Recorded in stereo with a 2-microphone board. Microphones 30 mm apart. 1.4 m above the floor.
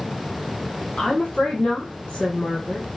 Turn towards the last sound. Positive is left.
turn(degrees=30)  # may be behind; listen again after turning